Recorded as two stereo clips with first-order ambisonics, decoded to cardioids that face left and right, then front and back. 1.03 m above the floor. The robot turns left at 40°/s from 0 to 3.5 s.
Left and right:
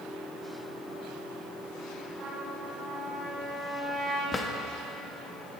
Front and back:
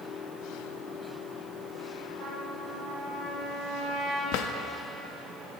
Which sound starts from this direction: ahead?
A drawer, at 4.3 s.